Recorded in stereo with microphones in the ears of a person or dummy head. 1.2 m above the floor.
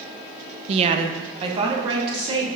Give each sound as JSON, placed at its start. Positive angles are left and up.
{"t": 0.7, "sound": "a woman speaking", "side_deg": -35, "distance_m": 0.5}